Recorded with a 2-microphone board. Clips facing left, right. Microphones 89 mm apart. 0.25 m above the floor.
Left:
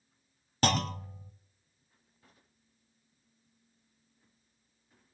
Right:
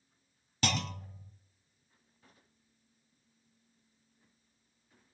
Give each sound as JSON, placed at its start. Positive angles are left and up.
{"t": 0.6, "sound": "a clunk", "side_deg": 45, "distance_m": 0.5}